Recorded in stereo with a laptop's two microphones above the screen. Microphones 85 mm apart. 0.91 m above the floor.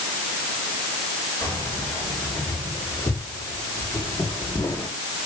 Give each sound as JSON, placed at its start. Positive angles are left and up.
{"t": 1.4, "sound": "keys jangling", "side_deg": 45, "distance_m": 9.0}